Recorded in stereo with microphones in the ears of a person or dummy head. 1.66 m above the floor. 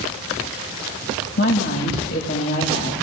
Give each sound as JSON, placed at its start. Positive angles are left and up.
{"t": 1.4, "sound": "a woman speaking", "side_deg": 55, "distance_m": 1.9}